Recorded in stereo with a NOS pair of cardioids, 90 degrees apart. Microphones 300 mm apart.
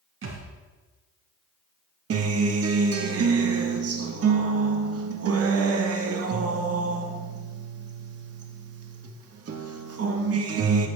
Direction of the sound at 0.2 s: 45° right.